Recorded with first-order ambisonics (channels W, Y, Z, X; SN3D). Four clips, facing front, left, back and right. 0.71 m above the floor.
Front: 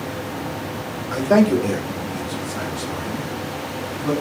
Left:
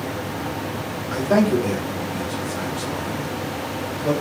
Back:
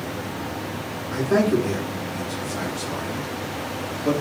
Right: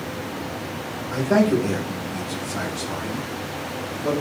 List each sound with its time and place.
1.1 s a man speaking: 10° left, 1.0 m; by 4.1 s 100° right, 1.6 m